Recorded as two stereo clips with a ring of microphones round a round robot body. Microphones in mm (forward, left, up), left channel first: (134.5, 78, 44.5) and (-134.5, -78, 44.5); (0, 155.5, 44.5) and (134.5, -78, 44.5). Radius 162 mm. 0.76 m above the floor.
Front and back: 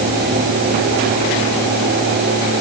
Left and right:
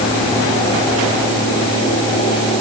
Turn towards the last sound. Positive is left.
No sound to turn to.